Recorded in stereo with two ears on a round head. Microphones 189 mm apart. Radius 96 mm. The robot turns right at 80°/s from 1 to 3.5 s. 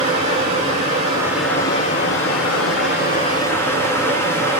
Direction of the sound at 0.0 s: 35° right.